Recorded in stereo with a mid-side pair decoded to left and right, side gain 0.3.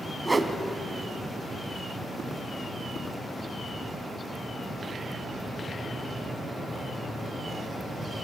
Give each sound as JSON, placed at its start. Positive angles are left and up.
{"t": 0.2, "sound": "a whoosh", "azimuth_deg": -30, "distance_m": 2.5}